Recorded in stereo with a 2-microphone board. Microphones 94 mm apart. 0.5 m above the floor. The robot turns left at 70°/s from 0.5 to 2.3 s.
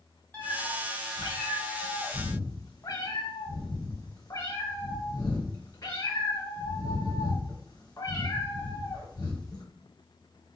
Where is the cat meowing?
165° left, 0.9 m; by 9.6 s 40° left, 0.9 m.